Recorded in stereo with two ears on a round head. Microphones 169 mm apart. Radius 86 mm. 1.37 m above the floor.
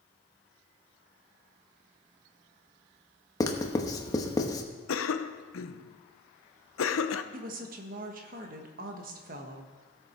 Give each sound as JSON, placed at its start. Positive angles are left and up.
{"t": 3.4, "sound": "writing", "side_deg": 20, "distance_m": 0.9}
{"t": 4.9, "sound": "a cough", "side_deg": 75, "distance_m": 0.7}
{"t": 7.3, "sound": "a woman speaking", "side_deg": -45, "distance_m": 1.4}